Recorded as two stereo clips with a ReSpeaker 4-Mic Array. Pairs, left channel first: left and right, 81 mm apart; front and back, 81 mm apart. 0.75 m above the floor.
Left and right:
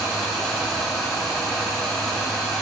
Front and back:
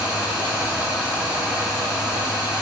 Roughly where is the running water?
Behind.